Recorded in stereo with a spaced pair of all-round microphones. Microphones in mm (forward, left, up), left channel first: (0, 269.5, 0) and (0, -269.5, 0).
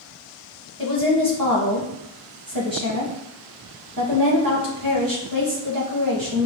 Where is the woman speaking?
40° right (ahead or behind), 1.6 m.